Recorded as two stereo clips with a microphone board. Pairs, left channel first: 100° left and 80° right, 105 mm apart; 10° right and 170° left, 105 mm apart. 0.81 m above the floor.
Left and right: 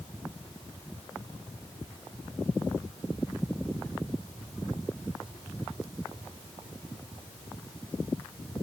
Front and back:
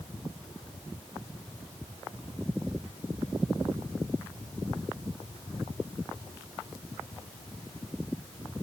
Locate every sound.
Only background noise.